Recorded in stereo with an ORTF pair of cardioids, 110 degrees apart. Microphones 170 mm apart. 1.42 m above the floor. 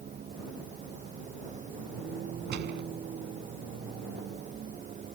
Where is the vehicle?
40° right.